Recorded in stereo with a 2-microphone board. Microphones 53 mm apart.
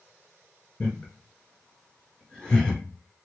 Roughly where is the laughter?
Centre.